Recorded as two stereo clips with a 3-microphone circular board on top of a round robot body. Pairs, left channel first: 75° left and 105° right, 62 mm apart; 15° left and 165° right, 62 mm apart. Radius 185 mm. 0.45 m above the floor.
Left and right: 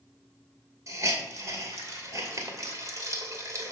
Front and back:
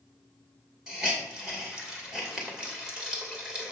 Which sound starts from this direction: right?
A hiss, at 0.9 s.